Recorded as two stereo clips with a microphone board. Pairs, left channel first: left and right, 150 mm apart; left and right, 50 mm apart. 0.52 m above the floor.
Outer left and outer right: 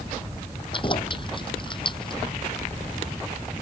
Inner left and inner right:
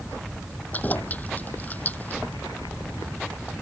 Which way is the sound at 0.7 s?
35° left (ahead or behind).